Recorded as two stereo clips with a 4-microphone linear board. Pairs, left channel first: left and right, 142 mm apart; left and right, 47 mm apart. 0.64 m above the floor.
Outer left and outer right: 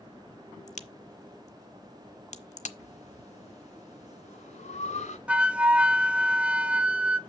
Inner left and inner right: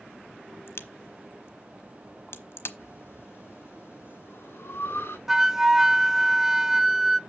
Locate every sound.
0.7 s a crack: 55° left (ahead or behind), 0.9 m
2.8 s breathing: 55° left (ahead or behind), 2.0 m
5.3 s a flute: 10° right (ahead or behind), 0.5 m